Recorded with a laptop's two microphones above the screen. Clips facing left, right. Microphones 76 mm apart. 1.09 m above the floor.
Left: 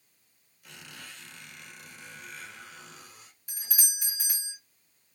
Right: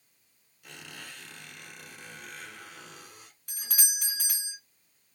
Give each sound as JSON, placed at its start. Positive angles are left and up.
{"t": 0.6, "sound": "a squeak", "side_deg": -60, "distance_m": 2.5}
{"t": 3.5, "sound": "a doorbell", "side_deg": -60, "distance_m": 2.0}